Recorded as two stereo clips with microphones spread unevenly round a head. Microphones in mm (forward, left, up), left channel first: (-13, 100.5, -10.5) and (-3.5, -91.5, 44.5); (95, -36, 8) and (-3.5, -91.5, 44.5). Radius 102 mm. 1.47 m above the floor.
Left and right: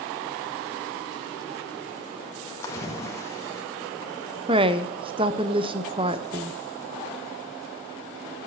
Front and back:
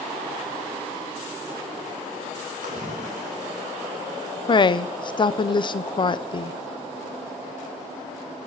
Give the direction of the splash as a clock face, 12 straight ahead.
6 o'clock.